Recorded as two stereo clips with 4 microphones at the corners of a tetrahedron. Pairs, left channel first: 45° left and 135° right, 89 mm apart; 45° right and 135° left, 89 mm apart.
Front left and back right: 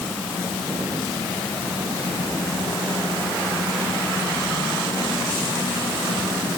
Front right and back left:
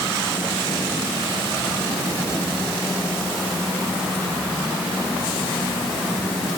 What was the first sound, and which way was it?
Only background noise.